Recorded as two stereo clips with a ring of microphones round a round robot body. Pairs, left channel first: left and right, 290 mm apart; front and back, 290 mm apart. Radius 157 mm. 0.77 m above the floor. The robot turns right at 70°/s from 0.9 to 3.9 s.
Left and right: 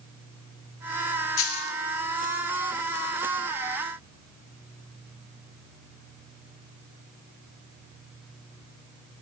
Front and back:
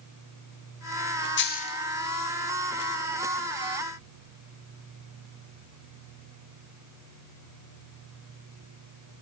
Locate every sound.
1.4 s a dropped coin: 45° left, 1.8 m; by 1.8 s 75° left, 1.8 m